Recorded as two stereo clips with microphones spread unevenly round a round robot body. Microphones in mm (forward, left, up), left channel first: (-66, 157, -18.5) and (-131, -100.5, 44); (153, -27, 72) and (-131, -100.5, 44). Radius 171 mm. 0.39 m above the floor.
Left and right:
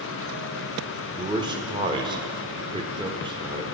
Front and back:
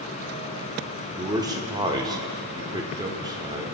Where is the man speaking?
175° left, 1.3 m.